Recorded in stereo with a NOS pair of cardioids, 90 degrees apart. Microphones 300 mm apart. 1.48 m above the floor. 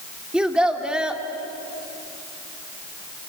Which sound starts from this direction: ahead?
A child speaking, at 0.3 s.